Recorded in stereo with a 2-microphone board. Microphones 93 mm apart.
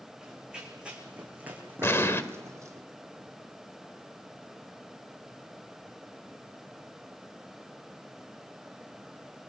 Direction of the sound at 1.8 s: 25° left (ahead or behind).